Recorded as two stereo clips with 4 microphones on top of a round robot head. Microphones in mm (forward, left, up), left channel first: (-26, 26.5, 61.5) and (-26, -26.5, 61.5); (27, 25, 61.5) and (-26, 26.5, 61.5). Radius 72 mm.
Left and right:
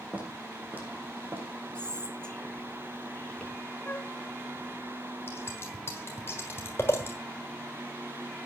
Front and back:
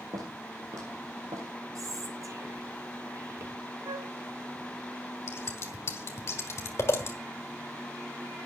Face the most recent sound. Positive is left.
turn(degrees=30)